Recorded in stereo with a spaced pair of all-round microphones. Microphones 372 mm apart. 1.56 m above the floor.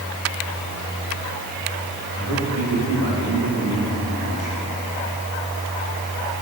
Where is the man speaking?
30° right (ahead or behind), 2.5 m; by 4.6 s 55° right (ahead or behind), 3 m.